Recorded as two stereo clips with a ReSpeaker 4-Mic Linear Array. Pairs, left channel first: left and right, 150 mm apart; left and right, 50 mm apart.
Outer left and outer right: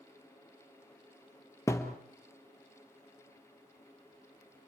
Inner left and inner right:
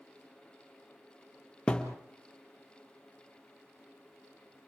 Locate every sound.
1.7 s a thud: 20° left (ahead or behind), 2 m